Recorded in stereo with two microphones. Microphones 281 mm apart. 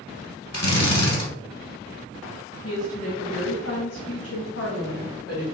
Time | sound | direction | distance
0.5 | a drill | 65° left (ahead or behind) | 1.4 m
2.6 | a woman speaking | 45° left (ahead or behind) | 1.8 m